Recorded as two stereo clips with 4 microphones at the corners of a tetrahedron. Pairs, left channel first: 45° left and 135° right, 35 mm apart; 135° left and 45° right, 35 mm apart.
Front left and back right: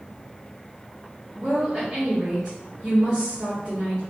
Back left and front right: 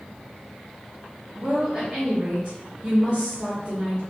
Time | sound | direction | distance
1.4 | a woman speaking | 65° right | 1.9 m